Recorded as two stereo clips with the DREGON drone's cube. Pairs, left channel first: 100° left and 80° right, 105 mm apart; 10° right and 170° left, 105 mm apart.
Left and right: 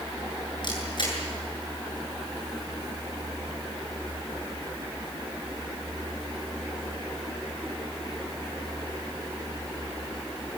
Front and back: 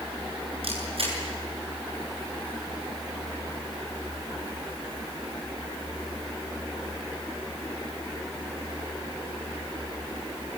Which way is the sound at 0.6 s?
145° left.